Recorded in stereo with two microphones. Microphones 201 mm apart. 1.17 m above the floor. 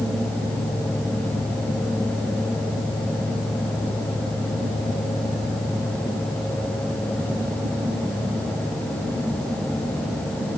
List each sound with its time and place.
Only background noise.